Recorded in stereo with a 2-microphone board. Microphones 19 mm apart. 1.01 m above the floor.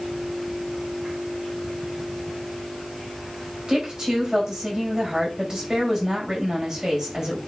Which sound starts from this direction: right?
A woman speaking, at 3.7 s.